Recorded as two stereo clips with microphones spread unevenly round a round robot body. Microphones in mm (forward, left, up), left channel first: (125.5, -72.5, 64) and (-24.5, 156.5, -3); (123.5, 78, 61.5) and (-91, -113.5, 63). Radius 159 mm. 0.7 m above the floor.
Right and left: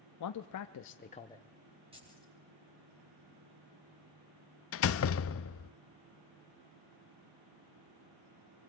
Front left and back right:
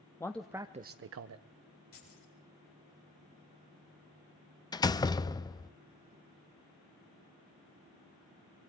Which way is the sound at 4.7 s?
30° right.